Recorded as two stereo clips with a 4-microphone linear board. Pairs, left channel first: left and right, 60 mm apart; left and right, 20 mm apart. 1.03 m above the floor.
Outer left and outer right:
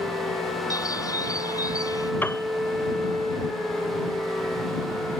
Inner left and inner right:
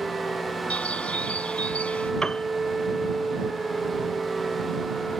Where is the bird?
85° left.